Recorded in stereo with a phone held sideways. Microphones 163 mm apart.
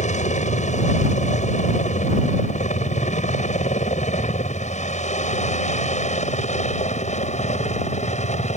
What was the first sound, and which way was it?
A helicopter, 45° left (ahead or behind).